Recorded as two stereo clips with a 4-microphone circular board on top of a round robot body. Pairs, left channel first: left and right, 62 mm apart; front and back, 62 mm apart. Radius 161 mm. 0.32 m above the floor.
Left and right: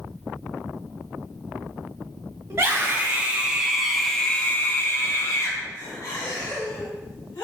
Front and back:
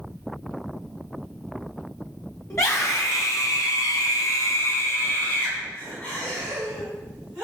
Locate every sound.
2.5 s a scream: 40° right, 3 m; by 7.4 s 85° left, 4.5 m